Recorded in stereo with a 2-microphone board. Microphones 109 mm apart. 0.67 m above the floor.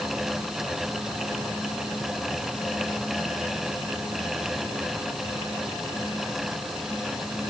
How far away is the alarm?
I don't hear an alarm.